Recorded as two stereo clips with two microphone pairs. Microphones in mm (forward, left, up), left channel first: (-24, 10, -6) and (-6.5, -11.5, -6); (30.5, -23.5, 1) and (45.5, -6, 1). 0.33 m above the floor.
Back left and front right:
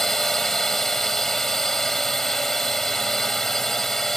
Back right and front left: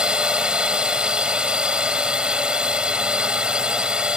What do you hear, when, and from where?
0.0 s a drone: 55° left